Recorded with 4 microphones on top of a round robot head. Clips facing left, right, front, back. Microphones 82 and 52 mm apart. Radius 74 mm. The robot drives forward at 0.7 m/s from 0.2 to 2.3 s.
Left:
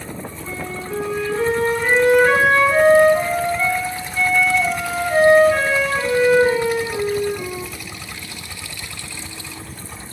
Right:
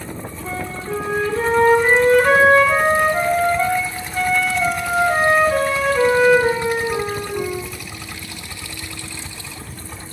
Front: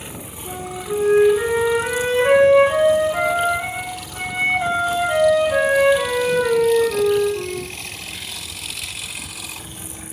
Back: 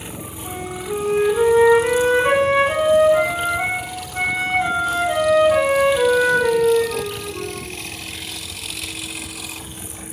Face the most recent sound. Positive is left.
turn(degrees=-135)